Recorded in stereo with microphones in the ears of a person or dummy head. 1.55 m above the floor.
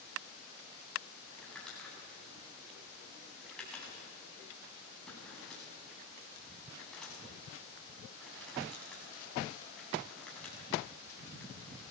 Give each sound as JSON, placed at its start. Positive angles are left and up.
{"t": 1.4, "sound": "crumpling", "side_deg": 5, "distance_m": 8.0}